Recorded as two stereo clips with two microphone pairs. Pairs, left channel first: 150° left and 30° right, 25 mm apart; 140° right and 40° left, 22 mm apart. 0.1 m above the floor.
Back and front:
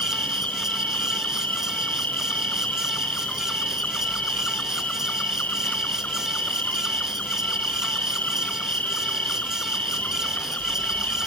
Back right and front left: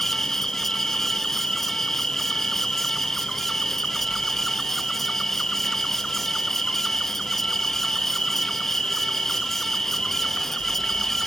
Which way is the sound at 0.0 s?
155° left.